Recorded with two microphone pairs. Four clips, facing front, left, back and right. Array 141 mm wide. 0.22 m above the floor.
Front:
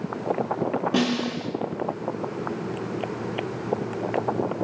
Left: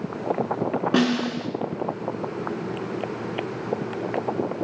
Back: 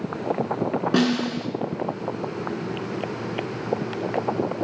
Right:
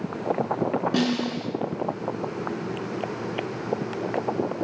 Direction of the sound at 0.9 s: 115° left.